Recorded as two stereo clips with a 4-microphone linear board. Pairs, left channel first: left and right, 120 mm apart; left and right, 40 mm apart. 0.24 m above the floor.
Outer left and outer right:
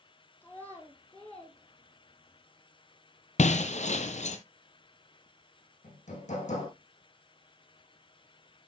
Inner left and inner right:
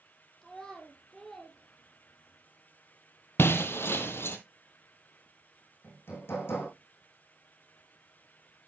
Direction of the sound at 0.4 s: 15° left (ahead or behind).